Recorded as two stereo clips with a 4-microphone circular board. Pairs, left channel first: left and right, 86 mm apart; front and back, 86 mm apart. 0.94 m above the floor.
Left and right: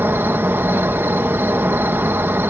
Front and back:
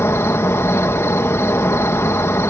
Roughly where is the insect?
Ahead right.